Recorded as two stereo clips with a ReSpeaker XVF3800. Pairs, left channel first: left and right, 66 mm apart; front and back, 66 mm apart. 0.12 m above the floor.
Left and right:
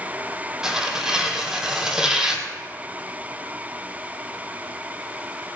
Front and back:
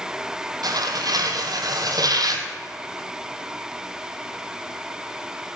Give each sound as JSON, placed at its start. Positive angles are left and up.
{"t": 0.6, "sound": "tearing paper", "azimuth_deg": -170, "distance_m": 1.7}